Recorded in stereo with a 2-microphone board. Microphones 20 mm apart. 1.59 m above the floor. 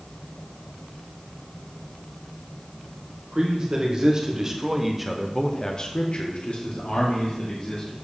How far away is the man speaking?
About 1.7 m.